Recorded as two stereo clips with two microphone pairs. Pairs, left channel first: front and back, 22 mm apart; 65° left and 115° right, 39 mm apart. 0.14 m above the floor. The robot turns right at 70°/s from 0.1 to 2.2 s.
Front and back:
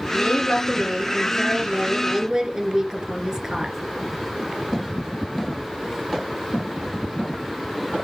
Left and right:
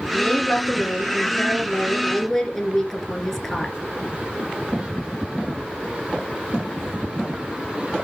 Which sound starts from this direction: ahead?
A woman speaking, at 0.1 s.